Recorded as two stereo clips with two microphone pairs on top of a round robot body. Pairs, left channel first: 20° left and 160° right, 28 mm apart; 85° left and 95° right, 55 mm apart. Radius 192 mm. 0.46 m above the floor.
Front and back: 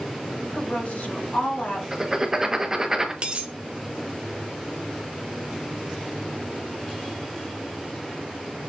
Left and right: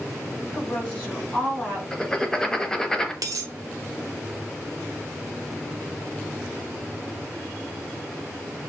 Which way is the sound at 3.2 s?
110° right.